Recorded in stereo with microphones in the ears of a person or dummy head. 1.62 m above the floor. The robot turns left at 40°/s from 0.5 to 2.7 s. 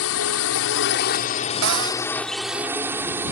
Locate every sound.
0.0 s a drone: 75° left; by 3.3 s 10° right
1.6 s a cupboard door: 75° right (ahead or behind); by 2.0 s 60° right (ahead or behind)